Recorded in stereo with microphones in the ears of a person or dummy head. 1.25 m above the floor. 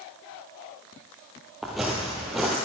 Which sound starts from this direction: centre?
Footsteps, at 1.6 s.